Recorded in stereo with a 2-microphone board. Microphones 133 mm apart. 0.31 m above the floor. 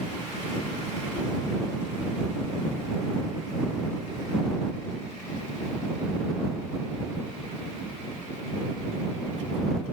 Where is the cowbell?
No cowbell in this recording.